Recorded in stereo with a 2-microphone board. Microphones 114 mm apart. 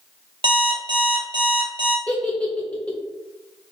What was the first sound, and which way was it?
An alarm clock, 50° right (ahead or behind).